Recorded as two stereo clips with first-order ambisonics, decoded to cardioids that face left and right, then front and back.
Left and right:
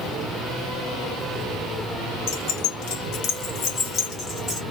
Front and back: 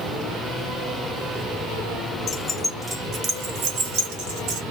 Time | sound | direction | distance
2.3 | keys jangling | 65° left | 0.8 m